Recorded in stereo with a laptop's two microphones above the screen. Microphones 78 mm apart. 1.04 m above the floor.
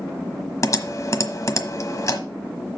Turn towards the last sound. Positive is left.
turn(degrees=45)  # may be behind; listen again after turning